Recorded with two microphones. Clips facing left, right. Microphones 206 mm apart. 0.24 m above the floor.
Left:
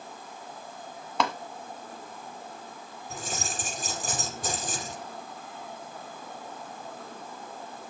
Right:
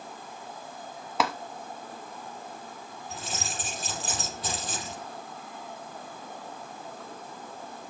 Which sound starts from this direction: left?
Keys jangling, at 3.1 s.